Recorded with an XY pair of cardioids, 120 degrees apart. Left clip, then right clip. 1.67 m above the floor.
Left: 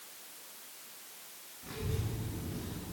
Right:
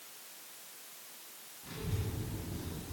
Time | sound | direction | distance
1.6 | a child speaking | 35° left | 2.0 m